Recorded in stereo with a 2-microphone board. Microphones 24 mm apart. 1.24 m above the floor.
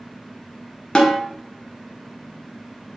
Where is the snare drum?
40° left (ahead or behind), 0.8 m.